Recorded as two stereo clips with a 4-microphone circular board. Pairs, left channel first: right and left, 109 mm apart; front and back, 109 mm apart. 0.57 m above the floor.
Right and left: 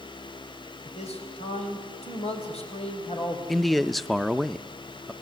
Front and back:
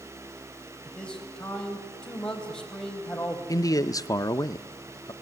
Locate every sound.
0.8 s a man speaking: 80° right, 4 m
3.5 s a man speaking: straight ahead, 0.6 m